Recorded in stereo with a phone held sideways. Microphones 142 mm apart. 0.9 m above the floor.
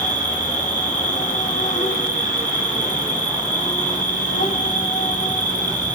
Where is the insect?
55° left (ahead or behind), 1.9 m.